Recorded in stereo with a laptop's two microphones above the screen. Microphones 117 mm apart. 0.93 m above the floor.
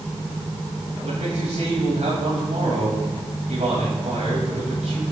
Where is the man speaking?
85° right, 6.5 m.